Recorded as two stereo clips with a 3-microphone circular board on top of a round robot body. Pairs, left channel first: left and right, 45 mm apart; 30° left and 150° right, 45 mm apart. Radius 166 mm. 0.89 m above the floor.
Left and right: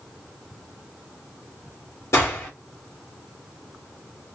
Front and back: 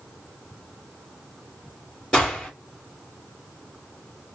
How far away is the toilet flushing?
No toilet flushing in this recording.